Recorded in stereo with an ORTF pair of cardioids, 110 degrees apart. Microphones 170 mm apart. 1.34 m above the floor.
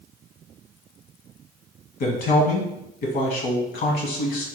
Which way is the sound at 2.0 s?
60° left.